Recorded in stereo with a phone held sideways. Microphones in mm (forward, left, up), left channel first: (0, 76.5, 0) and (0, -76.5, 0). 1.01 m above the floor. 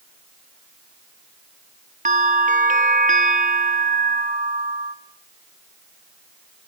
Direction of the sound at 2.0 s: 55° right (ahead or behind).